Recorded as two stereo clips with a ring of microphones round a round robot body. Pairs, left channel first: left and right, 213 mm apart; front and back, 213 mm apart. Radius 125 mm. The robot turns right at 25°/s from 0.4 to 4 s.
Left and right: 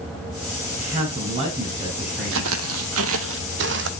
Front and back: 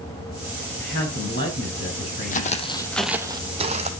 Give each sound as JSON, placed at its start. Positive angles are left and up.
{"t": 0.8, "sound": "a woman speaking", "azimuth_deg": -40, "distance_m": 3.5}
{"t": 2.3, "sound": "footsteps", "azimuth_deg": -50, "distance_m": 1.0}